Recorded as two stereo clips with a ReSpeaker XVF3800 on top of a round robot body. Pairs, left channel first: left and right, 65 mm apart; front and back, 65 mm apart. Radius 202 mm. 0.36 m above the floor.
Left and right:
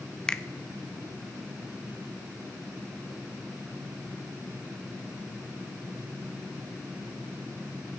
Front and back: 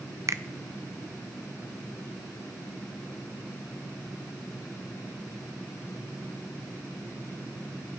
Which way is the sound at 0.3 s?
165° left.